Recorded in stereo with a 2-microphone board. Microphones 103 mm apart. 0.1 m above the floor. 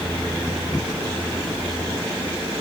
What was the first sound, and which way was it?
Only background noise.